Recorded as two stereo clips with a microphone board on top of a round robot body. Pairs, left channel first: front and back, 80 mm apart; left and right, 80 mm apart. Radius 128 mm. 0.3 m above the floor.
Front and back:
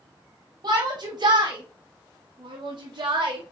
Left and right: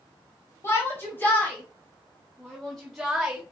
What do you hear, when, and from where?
0.6 s a shout: 145° left, 3.5 m; by 3.4 s 170° right, 3 m